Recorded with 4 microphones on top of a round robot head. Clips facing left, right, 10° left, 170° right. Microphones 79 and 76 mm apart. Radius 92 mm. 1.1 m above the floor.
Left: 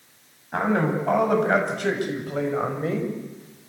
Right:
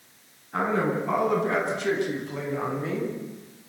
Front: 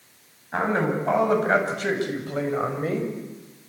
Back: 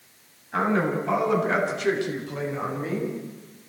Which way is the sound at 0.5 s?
60° left.